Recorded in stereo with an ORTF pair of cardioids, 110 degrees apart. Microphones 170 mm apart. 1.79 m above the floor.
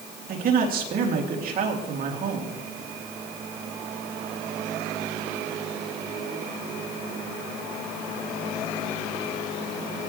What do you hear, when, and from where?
0.3 s a man speaking: 60° right, 3 m